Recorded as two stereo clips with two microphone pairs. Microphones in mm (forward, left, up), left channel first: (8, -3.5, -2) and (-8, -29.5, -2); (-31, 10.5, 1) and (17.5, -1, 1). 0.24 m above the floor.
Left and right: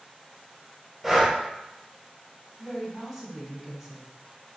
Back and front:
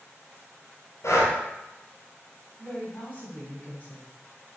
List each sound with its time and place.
1.0 s breathing: 155° left, 1.2 m
2.6 s a woman speaking: 165° left, 1.2 m